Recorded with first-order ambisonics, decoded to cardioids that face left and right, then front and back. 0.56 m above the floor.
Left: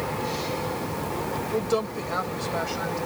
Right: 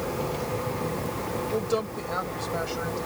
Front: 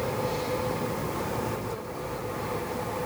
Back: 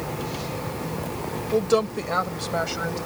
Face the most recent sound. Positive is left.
turn(degrees=175)